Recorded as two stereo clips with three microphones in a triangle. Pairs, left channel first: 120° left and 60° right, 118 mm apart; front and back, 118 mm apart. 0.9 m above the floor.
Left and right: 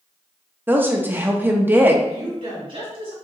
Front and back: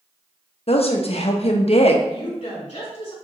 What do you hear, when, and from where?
0.7 s a woman speaking: 10° left, 0.7 m
2.1 s a woman speaking: 35° right, 2.5 m